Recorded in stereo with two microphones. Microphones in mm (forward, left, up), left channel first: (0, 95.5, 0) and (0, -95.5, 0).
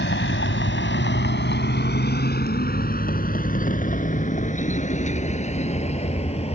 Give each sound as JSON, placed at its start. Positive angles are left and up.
{"t": 0.0, "sound": "a vehicle", "side_deg": 75}